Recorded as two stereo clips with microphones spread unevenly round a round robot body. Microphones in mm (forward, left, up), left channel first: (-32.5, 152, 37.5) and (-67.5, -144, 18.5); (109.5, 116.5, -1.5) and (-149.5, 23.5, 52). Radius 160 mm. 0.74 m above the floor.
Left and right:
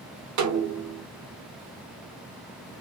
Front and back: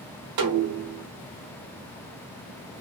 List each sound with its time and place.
0.4 s a snare drum: 130° right, 1.0 m